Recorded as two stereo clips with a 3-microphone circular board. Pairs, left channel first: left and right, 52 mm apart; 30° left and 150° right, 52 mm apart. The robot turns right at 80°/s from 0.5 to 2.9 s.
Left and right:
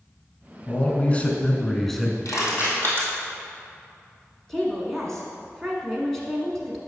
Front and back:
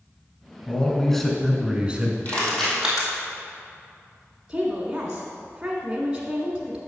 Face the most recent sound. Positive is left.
turn(degrees=165)